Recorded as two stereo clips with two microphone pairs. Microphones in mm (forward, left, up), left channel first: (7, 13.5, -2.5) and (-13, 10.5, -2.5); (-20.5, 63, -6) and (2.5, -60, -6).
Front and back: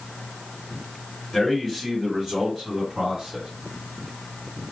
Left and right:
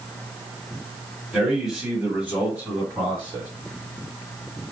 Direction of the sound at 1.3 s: 10° left.